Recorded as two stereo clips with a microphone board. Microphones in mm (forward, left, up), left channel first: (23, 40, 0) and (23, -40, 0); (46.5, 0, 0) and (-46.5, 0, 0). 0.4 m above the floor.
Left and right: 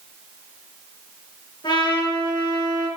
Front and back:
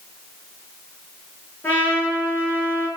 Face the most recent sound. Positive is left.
turn(degrees=70)